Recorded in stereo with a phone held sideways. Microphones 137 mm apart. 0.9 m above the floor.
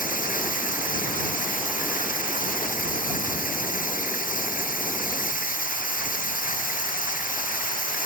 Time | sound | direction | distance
0.0 | running water | 85° left | ?